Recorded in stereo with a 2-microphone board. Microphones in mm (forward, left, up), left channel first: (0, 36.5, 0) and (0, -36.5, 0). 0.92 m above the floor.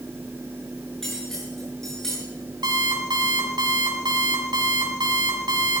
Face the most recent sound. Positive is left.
turn(degrees=-75)  # may be behind; listen again after turning